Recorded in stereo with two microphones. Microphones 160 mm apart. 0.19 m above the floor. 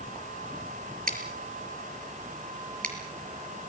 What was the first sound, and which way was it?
Scissors, 70° right (ahead or behind).